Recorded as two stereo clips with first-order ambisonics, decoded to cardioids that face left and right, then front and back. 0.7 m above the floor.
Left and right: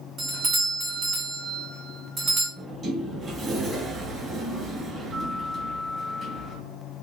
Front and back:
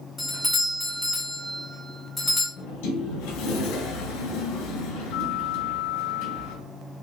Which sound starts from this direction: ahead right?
A sliding door, at 2.6 s.